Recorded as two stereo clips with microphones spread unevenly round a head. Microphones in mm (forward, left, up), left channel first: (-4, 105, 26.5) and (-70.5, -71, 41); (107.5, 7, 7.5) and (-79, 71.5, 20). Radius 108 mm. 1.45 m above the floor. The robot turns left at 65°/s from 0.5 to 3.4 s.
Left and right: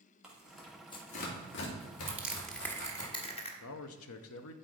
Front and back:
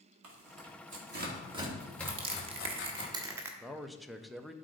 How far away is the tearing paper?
About 2.5 m.